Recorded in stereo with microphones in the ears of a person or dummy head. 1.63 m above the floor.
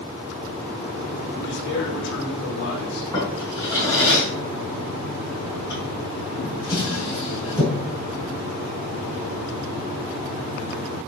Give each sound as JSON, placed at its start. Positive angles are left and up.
{"t": 1.4, "sound": "a man speaking", "side_deg": 65, "distance_m": 3.5}
{"t": 3.1, "sound": "a drawer", "side_deg": 20, "distance_m": 6.0}